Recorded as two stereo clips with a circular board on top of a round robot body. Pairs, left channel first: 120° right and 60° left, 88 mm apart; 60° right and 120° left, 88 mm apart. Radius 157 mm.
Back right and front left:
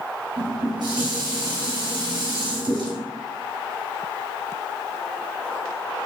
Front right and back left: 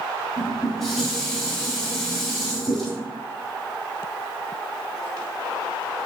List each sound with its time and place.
0.4 s dishes clattering: 25° left, 1.2 m